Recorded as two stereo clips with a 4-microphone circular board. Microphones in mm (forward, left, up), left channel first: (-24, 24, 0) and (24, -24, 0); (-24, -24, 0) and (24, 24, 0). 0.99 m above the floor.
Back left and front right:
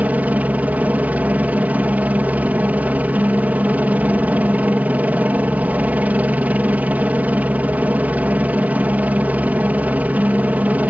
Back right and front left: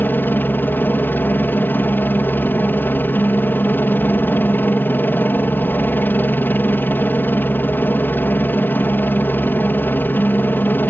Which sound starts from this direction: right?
A helicopter, at 0.0 s.